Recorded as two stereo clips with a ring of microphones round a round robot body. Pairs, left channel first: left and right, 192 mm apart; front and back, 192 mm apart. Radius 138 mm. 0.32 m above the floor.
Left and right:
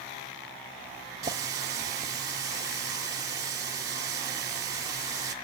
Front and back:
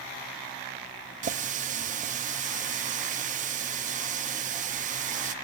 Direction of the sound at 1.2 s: 155° right.